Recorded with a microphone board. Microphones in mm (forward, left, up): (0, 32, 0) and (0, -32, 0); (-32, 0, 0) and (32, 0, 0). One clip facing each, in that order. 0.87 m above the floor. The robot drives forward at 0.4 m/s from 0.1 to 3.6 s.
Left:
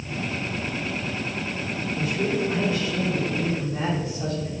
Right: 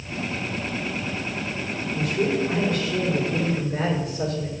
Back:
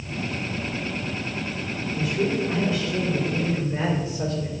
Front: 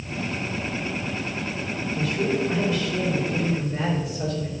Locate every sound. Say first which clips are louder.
1.9 s a man speaking: right 2 dB, even; 110° right, 3 m; by 4.5 s 120° right, 3.5 m